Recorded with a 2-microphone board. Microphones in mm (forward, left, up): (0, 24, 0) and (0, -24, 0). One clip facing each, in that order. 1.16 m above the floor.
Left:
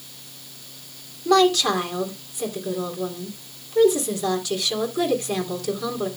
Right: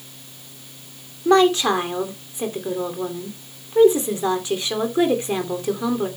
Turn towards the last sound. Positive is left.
turn(degrees=-25)  # may be behind; listen again after turning